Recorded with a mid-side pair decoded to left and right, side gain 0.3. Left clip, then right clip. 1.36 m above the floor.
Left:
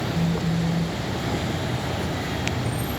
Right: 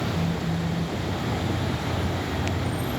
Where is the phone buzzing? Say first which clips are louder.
Left 2 dB; 40° left.